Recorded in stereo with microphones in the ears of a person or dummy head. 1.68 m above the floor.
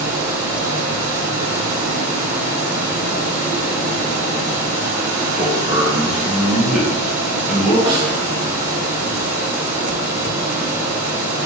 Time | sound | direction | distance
0.0 | a fan | 15° right (ahead or behind) | 3 m
5.4 | a man speaking | 5° right (ahead or behind) | 1.9 m
7.9 | a snare drum | 30° right (ahead or behind) | 1.7 m